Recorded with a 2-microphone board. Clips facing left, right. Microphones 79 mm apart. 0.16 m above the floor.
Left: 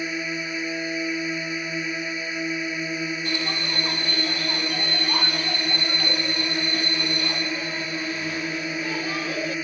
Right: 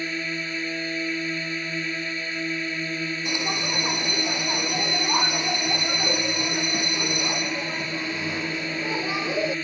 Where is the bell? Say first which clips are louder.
Even; 15° right (ahead or behind).